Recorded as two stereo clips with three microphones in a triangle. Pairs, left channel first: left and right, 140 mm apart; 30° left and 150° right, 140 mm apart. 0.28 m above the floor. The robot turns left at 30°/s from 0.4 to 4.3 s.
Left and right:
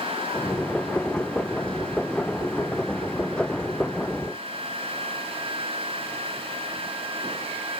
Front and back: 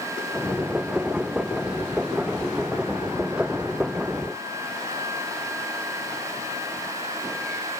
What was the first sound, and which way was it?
Only background noise.